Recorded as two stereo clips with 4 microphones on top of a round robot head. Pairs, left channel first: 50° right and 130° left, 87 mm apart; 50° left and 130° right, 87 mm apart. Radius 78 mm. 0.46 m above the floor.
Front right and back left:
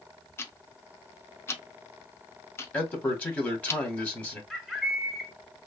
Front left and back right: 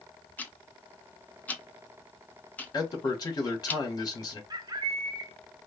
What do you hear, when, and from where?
0.4 s ticking: 10° right, 0.7 m
2.7 s a man speaking: 20° left, 1.4 m
4.5 s a bird: 140° right, 1.4 m